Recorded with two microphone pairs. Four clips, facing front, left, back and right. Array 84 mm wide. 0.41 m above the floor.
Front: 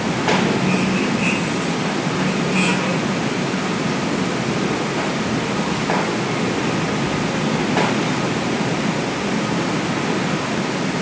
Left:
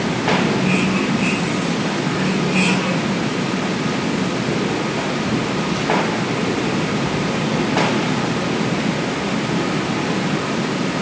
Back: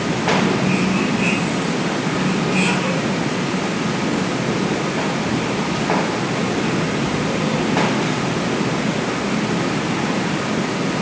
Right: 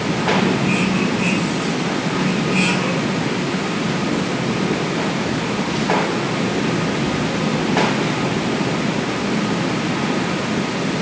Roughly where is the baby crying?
I don't hear a baby crying.